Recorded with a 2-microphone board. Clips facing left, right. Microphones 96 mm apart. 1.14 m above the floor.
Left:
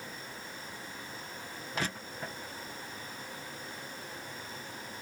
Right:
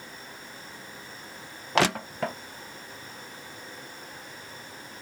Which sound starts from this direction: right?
Crushing, at 1.8 s.